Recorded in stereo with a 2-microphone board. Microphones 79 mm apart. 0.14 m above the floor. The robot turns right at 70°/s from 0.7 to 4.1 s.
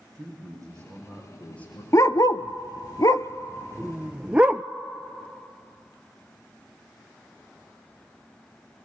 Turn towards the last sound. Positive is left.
turn(degrees=-15)  # may be behind; listen again after turning